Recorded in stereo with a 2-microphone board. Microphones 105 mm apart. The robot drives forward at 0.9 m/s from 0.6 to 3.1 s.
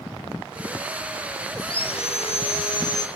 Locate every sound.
1.6 s sawing: 50° left (ahead or behind), 0.9 m; by 3.1 s 35° left (ahead or behind), 1.1 m